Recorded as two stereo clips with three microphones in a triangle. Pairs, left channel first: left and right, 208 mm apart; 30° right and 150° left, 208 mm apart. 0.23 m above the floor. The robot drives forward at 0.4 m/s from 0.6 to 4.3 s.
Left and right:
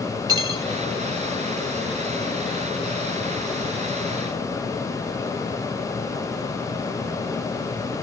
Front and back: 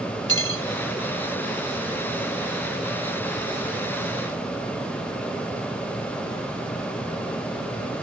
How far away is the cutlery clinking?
About 1.3 m.